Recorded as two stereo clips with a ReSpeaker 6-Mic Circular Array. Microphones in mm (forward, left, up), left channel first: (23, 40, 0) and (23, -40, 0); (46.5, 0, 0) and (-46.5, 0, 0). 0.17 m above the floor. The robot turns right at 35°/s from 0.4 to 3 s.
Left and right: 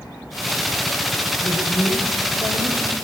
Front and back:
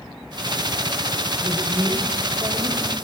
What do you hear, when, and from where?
1.4 s a woman speaking: 95° left, 8.5 m; by 2.8 s 145° left, 8.5 m